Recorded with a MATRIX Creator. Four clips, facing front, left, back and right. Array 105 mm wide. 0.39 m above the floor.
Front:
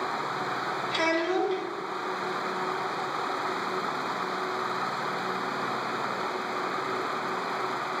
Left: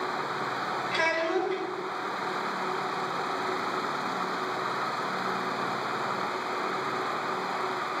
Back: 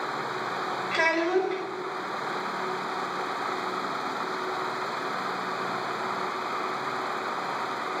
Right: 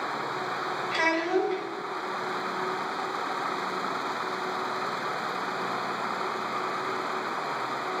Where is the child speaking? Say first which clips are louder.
Right 2 dB, back 2 dB; 170° right, 1.2 m.